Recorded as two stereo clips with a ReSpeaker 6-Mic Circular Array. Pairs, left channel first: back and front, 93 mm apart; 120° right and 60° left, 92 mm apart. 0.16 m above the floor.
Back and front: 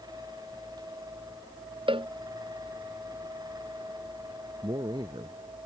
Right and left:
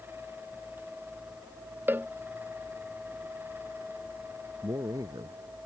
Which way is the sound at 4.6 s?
20° left.